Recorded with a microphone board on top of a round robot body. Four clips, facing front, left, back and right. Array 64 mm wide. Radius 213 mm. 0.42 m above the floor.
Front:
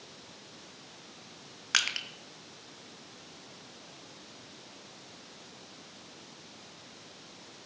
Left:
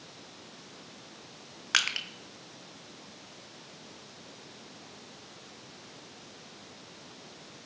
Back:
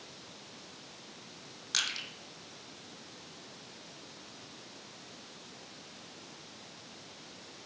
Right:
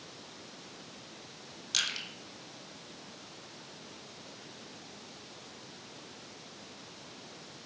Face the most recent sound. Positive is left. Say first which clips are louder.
# left 7 dB, front 6 dB
turn(degrees=55)